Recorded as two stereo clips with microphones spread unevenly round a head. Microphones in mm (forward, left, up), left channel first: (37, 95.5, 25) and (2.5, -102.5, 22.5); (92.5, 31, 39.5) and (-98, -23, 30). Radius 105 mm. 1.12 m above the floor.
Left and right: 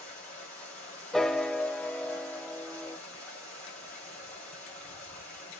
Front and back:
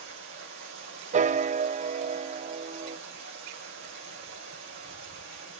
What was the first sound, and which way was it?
Running water, 160° left.